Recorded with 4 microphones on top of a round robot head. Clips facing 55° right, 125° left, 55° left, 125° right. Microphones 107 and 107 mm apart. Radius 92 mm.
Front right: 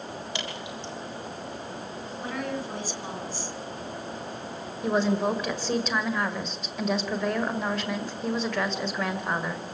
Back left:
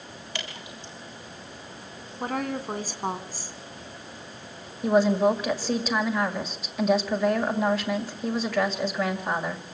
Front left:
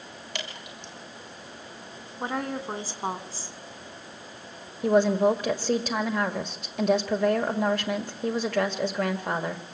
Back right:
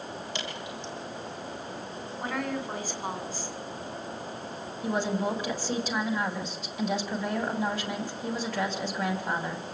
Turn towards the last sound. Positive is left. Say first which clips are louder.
# back left 4 dB, front left 8 dB
turn(degrees=40)